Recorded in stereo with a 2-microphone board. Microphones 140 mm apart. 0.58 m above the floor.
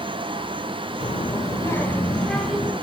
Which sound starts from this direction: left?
A child speaking, at 1.0 s.